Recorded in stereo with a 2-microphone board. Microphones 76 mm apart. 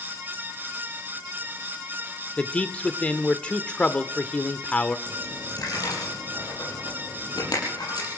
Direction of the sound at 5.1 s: 60° left (ahead or behind).